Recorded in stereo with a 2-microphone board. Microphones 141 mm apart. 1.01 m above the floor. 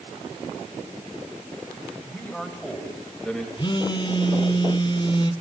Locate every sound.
2.0 s a man speaking: 10° left (ahead or behind), 6 m; by 3.5 s 5° left (ahead or behind), 6 m
3.6 s a phone buzzing: 35° left (ahead or behind), 1.3 m